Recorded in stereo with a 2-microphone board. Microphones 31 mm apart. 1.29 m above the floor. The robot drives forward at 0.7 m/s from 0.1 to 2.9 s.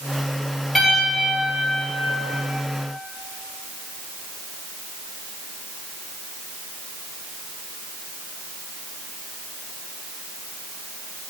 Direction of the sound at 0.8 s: Centre (ahead or behind).